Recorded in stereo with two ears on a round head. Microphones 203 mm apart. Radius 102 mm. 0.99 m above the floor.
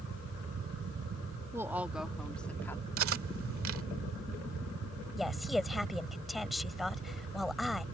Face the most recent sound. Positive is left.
turn(degrees=0)  # may be behind; listen again after turning